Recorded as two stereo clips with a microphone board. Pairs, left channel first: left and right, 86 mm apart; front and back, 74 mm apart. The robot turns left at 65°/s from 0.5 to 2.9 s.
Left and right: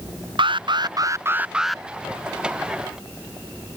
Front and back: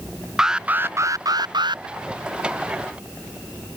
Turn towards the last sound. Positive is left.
turn(degrees=105)